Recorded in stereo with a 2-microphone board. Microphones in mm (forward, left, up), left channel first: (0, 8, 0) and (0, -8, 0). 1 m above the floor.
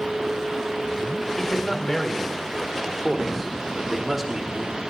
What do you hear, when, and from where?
1.4 s a man speaking: 25° left (ahead or behind), 4 m; by 4.8 s 30° right (ahead or behind), 2.5 m